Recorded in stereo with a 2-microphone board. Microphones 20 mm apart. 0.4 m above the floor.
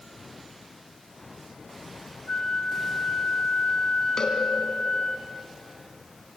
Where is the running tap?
I don't hear a running tap.